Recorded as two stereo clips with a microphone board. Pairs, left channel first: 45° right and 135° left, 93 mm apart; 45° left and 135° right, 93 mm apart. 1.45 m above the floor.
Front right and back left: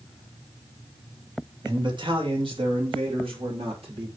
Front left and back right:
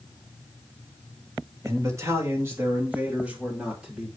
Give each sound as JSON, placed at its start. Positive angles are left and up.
{"t": 1.6, "sound": "a man speaking", "azimuth_deg": 170, "distance_m": 2.5}